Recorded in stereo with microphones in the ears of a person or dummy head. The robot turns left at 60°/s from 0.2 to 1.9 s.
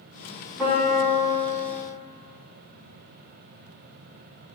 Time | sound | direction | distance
0.6 | a piano | 5° right | 1.0 m